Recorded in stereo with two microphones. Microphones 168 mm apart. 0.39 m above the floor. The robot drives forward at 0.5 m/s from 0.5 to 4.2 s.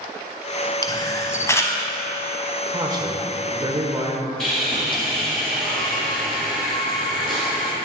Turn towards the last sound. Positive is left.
turn(degrees=0)  # may be behind; listen again after turning